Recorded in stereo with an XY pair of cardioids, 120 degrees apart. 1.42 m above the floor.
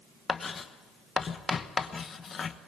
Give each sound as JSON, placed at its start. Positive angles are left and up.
{"t": 0.3, "sound": "writing", "azimuth_deg": 35, "distance_m": 1.1}